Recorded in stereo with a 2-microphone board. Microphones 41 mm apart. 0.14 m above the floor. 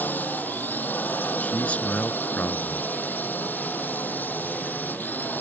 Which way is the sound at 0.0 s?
50° left (ahead or behind).